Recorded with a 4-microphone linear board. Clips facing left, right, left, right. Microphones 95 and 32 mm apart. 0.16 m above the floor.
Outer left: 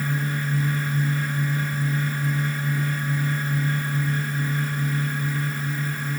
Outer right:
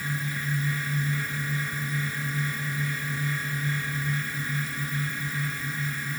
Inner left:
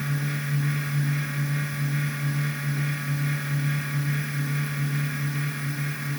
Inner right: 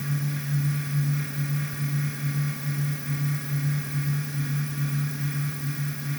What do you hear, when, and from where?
Only background noise.